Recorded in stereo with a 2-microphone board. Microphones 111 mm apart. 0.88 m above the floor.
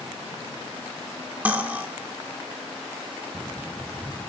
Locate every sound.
1.4 s cutlery clinking: 15° right (ahead or behind), 1.3 m